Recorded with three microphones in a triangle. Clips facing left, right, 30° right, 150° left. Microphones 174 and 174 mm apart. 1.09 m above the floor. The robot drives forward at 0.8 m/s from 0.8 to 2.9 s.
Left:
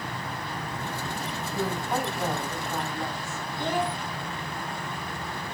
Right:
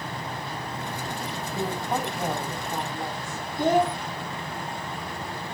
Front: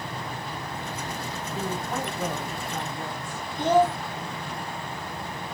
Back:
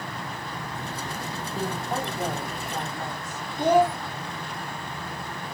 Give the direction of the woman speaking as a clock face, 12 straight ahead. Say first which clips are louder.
Even, back 1 dB; 5 o'clock.